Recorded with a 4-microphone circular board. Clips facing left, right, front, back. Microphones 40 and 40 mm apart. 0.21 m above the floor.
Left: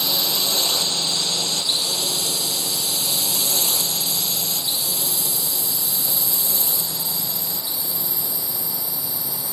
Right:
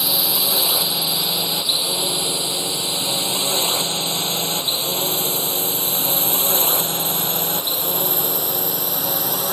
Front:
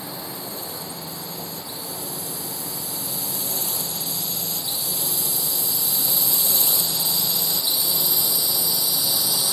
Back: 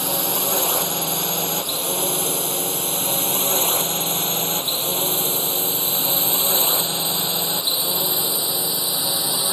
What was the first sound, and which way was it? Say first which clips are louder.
A drone: right 1 dB, back 9 dB; 170° right.